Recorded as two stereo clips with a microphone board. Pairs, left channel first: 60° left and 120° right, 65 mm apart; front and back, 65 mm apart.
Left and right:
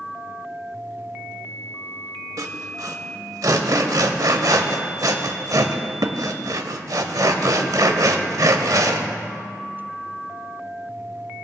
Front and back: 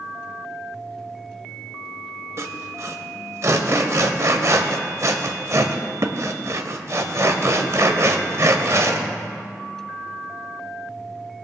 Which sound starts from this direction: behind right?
Sawing, at 2.4 s.